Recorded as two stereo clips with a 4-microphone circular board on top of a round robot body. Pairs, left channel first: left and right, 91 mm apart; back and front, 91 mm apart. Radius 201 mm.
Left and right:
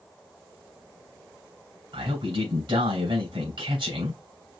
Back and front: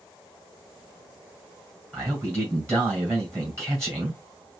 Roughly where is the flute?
No flute in this recording.